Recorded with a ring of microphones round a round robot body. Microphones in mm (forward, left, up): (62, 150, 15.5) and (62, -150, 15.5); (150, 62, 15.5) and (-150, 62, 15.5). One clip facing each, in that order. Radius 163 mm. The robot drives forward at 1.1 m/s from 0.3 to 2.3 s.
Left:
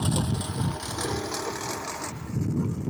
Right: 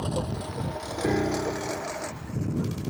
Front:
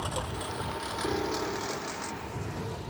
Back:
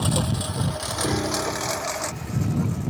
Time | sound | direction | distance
0.0 | a lawn mower | 150° left | ?
1.0 | a piano | 135° right | ?